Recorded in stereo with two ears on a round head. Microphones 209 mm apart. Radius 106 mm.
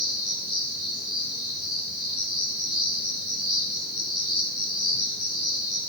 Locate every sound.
0.0 s an insect: 15° right (ahead or behind), 8 m